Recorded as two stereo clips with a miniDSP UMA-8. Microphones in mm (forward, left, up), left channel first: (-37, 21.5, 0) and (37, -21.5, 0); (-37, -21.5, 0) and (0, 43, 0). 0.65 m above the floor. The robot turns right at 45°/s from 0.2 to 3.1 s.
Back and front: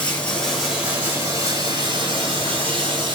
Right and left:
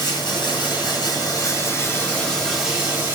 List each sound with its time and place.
0.0 s running water: 135° right, 4.5 m; by 3.2 s 5° right, 4.5 m